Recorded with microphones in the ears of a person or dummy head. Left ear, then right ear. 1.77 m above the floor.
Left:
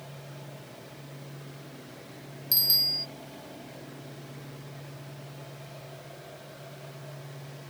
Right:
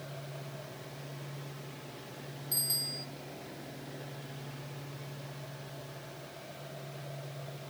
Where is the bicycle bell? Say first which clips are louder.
Left 11 dB; 30° left (ahead or behind).